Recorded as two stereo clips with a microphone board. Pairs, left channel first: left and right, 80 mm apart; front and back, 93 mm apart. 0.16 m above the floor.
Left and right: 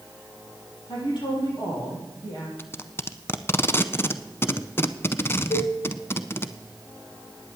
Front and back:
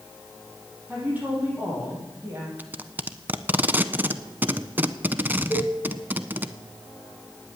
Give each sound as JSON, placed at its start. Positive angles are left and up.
{"t": 0.9, "sound": "a woman speaking", "azimuth_deg": 110, "distance_m": 6.5}
{"t": 2.6, "sound": "tape being pulled", "azimuth_deg": 125, "distance_m": 0.5}
{"t": 5.5, "sound": "a cowbell", "azimuth_deg": 120, "distance_m": 7.5}